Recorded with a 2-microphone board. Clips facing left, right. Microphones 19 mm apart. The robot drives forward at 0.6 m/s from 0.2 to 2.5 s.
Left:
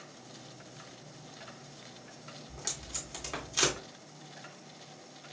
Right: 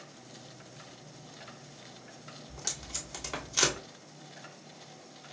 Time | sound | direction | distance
2.5 | tape being pulled | 15° right (ahead or behind) | 1.9 m